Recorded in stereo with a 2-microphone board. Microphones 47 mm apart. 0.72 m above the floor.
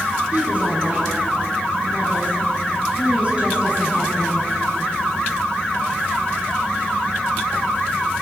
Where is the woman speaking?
30° right (ahead or behind), 7.5 m.